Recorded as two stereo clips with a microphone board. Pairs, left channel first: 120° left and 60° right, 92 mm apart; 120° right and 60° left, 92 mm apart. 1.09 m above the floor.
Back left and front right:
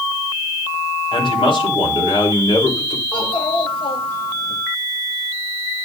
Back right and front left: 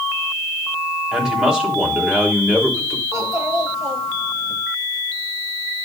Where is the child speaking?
115° left, 3 m.